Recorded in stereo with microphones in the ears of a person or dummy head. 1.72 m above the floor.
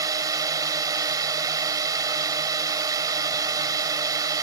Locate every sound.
0.0 s a drone: 25° right (ahead or behind)